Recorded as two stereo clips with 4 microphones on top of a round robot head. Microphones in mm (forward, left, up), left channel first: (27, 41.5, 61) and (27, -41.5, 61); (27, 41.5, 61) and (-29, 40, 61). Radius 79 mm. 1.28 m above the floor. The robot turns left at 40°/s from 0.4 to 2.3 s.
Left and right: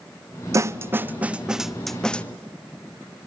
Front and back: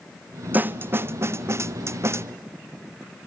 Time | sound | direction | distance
0.5 | a snare drum | 130° right | 0.6 m